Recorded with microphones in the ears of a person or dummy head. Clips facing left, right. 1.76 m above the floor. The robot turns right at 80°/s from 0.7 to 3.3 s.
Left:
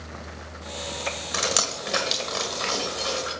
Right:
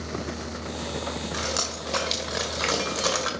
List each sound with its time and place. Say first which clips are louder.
1.3 s dripping: left 2 dB; 65° left (ahead or behind), 1.8 m; by 3.3 s 85° right, 1.8 m